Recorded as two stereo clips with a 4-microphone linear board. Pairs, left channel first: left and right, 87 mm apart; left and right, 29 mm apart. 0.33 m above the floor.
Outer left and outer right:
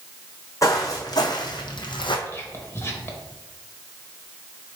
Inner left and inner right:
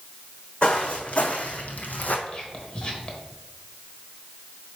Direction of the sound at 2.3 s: 30° left (ahead or behind).